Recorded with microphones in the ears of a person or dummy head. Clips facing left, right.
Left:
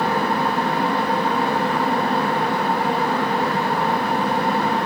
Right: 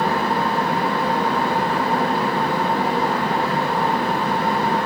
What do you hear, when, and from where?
0.0 s a fan: 25° right (ahead or behind), 1.1 m